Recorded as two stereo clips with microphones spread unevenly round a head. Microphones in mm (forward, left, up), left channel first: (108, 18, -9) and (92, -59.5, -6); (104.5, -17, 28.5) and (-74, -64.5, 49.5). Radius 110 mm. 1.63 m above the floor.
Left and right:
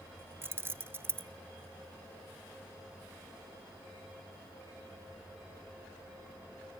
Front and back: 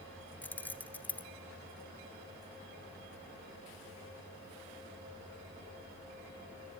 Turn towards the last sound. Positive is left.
turn(degrees=-70)